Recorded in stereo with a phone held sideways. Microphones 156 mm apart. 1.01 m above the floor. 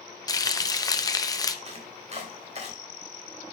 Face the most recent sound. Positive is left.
turn(degrees=-45)  # may be behind; listen again after turning